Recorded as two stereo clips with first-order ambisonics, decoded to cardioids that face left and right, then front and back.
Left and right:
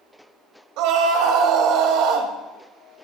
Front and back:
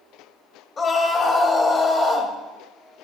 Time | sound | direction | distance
0.8 | a scream | 65° right | 2 m